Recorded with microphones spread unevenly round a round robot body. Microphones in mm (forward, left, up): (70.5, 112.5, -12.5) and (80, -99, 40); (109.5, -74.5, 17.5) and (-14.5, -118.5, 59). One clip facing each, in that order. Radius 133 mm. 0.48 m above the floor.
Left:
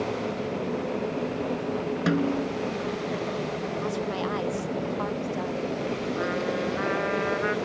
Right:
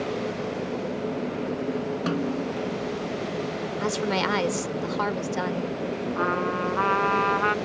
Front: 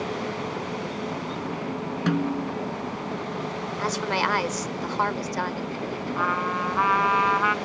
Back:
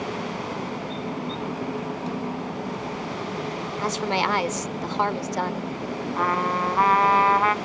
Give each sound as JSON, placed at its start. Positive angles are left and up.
{"t": 2.1, "sound": "a snare drum", "azimuth_deg": 20}
{"t": 3.8, "sound": "a woman speaking", "azimuth_deg": -85}
{"t": 6.2, "sound": "a trumpet", "azimuth_deg": -125}